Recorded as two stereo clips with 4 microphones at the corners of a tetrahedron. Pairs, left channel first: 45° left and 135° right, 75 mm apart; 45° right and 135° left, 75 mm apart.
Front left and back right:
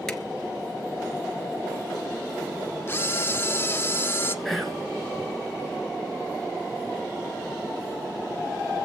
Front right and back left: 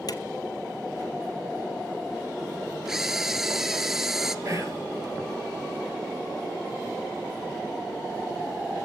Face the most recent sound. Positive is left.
turn(degrees=135)